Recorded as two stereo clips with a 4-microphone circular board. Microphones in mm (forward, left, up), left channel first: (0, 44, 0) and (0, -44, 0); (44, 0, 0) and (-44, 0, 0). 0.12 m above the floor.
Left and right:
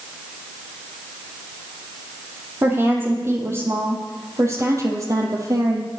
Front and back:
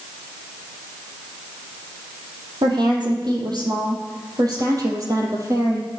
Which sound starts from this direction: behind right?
A woman speaking, at 2.6 s.